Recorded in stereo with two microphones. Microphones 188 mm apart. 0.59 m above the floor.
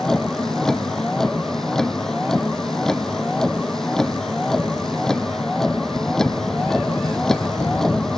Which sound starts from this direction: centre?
A vehicle, at 0.0 s.